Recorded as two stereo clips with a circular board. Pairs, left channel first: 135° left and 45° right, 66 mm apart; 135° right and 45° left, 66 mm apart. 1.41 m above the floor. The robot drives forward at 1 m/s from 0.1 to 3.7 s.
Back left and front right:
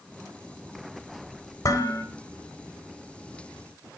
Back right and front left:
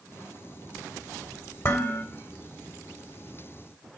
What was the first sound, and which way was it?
Dishes clattering, 175° left.